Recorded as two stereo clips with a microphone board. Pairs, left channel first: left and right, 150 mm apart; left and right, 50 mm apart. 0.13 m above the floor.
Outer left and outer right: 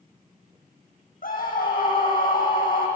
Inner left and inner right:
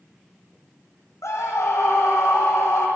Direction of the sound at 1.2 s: 65° left (ahead or behind).